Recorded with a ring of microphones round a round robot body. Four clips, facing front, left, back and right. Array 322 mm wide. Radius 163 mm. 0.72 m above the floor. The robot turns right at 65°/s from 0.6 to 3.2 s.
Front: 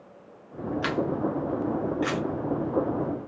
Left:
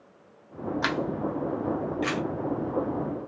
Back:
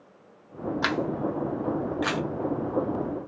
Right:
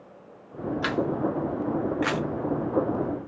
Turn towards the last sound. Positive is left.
turn(degrees=-60)